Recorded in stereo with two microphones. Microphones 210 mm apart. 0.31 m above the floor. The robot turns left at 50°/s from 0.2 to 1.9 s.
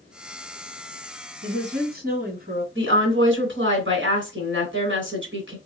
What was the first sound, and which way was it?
A woman speaking, 60° right (ahead or behind).